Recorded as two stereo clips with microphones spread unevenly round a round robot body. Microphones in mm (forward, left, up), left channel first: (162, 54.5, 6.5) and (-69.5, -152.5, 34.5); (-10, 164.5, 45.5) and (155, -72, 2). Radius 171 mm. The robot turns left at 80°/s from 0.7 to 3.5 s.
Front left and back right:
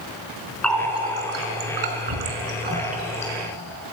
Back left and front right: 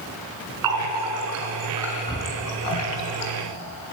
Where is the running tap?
45° right, 3 m; by 3.3 s 105° left, 3 m.